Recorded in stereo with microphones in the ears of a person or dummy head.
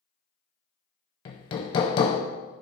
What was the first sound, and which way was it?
Hammering, 25° left (ahead or behind).